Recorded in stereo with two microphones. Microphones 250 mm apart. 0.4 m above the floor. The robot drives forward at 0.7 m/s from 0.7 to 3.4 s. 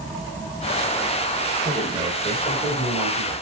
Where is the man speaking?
25° right (ahead or behind), 1.4 m; by 3.4 s 15° right (ahead or behind), 2.5 m.